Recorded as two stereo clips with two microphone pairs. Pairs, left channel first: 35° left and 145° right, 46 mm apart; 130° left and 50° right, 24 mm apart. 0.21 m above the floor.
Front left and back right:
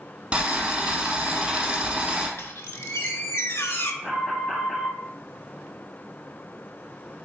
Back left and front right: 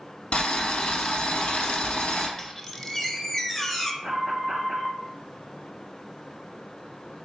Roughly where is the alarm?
Ahead right.